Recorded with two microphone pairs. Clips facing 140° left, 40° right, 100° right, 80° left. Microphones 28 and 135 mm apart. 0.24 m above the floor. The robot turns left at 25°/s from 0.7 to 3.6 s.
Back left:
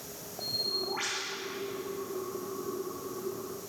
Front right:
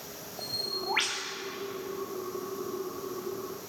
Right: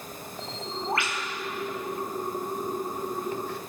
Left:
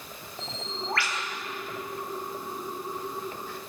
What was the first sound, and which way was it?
A bird, 25° right.